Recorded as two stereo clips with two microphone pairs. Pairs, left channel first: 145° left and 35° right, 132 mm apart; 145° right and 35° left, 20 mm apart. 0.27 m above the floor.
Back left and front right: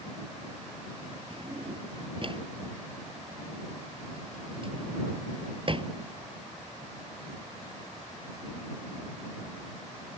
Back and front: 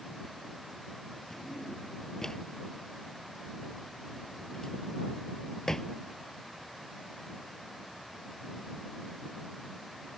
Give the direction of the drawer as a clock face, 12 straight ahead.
3 o'clock.